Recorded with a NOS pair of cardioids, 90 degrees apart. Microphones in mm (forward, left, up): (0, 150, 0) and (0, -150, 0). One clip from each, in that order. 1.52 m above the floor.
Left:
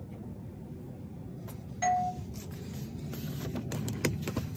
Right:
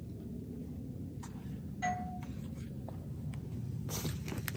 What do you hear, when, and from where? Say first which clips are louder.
1.8 s a doorbell: left 9 dB; 55° left, 0.8 m